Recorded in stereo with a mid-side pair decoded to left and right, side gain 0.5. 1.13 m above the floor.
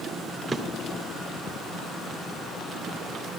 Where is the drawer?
25° right, 2.0 m.